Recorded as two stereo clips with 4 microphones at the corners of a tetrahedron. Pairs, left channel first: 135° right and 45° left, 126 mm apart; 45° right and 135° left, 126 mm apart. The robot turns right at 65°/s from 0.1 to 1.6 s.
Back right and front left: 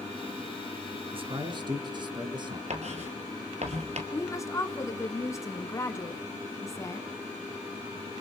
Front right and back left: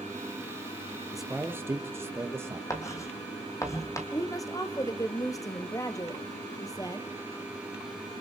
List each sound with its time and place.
1.1 s a man speaking: 45° left, 2 m; by 2.6 s 75° left, 2 m
2.7 s writing: 20° left, 3 m
4.1 s a woman speaking: 85° right, 1.4 m